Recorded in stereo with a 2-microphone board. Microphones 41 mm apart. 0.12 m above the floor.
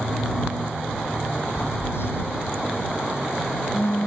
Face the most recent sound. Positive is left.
turn(degrees=75)  # may be behind; listen again after turning